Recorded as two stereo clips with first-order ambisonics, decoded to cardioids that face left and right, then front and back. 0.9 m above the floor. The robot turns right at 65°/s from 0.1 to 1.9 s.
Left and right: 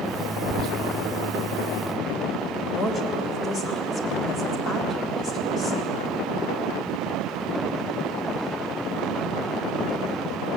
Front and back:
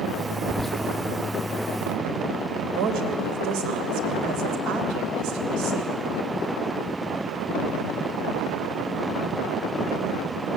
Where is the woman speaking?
160° left, 3 m.